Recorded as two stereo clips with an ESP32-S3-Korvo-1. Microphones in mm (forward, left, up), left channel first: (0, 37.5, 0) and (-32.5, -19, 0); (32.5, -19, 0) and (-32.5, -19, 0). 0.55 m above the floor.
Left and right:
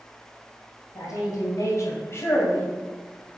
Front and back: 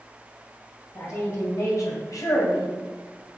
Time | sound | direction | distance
0.9 | a woman speaking | 40° left | 3 m